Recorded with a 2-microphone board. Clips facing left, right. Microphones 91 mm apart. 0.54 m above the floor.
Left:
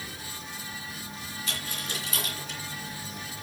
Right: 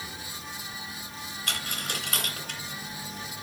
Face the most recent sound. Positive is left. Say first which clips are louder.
# right 3 dB
turn(degrees=-60)  # may be behind; listen again after turning